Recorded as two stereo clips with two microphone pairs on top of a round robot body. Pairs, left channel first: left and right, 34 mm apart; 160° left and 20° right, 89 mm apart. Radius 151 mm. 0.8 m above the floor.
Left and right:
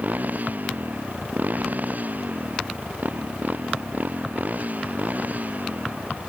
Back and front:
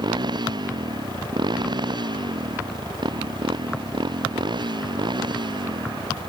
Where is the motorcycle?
60° right; by 6.3 s 55° right.